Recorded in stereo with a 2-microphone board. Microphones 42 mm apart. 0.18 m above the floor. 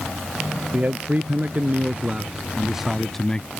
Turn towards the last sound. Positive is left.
turn(degrees=25)  # may be behind; listen again after turning